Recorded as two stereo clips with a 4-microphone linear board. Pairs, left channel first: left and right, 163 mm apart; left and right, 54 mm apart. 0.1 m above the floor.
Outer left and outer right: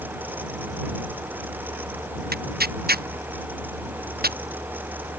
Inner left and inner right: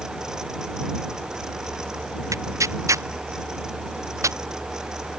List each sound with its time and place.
2.3 s tearing paper: 75° right (ahead or behind)